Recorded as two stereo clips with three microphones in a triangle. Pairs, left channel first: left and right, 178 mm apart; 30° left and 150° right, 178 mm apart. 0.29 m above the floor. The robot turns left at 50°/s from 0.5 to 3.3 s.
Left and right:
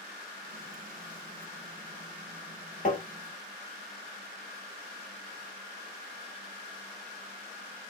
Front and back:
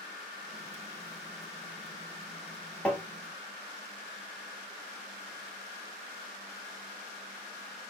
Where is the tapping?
110° left, 0.9 m; by 3.0 s 100° left, 0.9 m.